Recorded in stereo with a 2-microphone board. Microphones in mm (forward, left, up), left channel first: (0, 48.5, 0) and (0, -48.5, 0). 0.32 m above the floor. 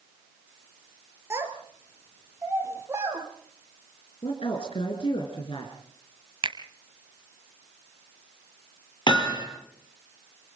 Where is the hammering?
50° left (ahead or behind), 6.5 m.